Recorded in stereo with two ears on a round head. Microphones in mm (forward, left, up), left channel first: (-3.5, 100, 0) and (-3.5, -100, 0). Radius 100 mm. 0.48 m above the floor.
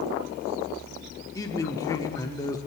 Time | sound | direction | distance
1.4 | a man speaking | 15° left (ahead or behind) | 1.1 m